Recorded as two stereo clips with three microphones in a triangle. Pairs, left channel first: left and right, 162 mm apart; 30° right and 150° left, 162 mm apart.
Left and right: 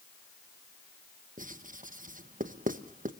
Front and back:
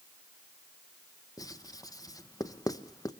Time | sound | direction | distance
1.4 | writing | 95° right | 1.0 m